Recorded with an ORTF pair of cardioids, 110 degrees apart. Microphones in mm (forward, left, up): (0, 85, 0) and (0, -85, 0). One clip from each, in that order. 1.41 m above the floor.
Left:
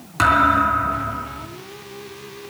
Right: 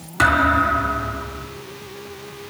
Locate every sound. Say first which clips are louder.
0.2 s a thud: left 1 dB; 15° left, 4 m